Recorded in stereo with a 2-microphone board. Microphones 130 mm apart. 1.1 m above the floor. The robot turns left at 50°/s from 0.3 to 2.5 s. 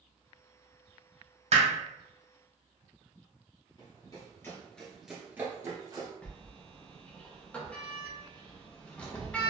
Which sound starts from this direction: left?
Running footsteps, at 3.8 s.